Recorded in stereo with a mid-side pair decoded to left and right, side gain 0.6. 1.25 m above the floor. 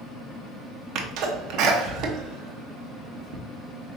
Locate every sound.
0.9 s a sneeze: 60° right, 1.3 m